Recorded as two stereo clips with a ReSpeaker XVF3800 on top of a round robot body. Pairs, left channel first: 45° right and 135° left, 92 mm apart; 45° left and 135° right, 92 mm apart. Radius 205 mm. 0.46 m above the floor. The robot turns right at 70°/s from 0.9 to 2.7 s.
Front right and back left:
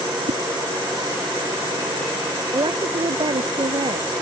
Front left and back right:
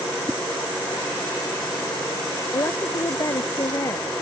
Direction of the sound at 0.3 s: 130° left.